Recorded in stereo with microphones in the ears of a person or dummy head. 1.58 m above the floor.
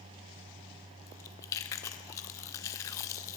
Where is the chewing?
15° left (ahead or behind), 0.6 m.